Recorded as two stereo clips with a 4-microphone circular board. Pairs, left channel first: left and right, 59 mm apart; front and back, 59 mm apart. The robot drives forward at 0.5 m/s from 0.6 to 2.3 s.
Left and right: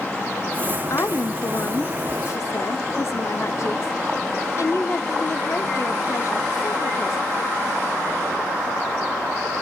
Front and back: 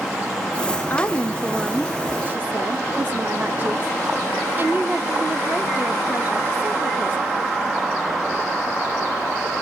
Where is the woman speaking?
55° left, 0.7 m; by 7.2 s 125° left, 0.7 m.